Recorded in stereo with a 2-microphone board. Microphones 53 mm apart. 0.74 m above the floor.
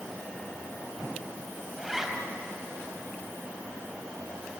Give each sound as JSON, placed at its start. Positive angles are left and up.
{"t": 1.8, "sound": "a zipper", "side_deg": -5, "distance_m": 2.5}